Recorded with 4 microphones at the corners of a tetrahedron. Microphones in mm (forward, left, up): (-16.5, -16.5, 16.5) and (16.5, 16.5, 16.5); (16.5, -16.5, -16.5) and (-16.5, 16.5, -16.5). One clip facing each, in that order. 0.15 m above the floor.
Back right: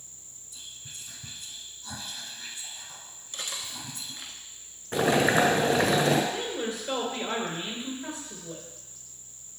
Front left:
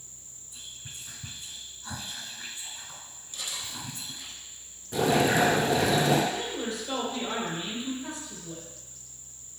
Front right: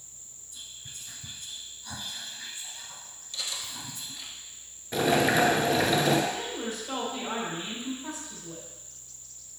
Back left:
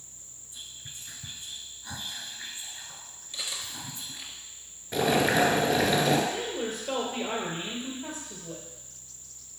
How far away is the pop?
I don't hear a pop.